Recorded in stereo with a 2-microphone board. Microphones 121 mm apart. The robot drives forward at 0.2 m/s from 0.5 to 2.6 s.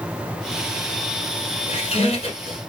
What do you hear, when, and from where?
1.7 s a squeak: 50° left (ahead or behind), 1.2 m